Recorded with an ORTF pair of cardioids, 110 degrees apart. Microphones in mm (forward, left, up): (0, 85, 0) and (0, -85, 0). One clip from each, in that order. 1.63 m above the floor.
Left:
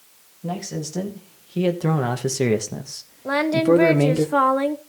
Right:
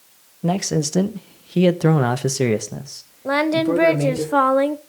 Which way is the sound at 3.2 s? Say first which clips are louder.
Even; 10° right.